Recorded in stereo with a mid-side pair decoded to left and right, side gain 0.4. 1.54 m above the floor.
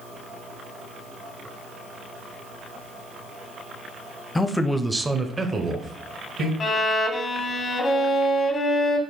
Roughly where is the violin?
Ahead left.